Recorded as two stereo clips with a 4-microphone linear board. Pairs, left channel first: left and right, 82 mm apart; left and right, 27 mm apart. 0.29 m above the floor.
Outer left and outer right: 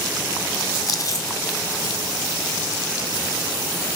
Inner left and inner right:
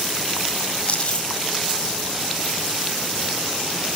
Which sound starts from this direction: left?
Chewing, at 0.9 s.